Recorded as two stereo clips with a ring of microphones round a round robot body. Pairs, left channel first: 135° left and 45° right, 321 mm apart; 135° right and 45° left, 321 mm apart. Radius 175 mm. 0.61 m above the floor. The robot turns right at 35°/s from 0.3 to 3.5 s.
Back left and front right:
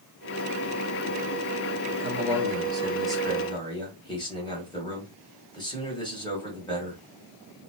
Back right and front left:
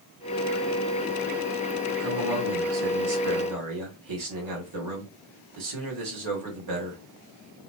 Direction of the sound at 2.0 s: 5° left.